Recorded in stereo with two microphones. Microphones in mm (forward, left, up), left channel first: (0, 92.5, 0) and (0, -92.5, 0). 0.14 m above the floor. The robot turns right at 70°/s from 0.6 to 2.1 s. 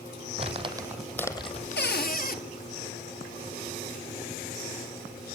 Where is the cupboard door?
65° left (ahead or behind), 1.2 m; by 2.4 s 55° left (ahead or behind), 1.2 m.